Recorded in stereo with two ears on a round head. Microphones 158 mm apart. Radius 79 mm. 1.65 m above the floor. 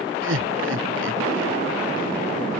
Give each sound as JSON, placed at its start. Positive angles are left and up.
{"t": 0.2, "sound": "laughter", "side_deg": -85}